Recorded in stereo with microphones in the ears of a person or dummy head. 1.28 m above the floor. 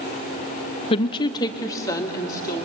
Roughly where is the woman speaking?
Left.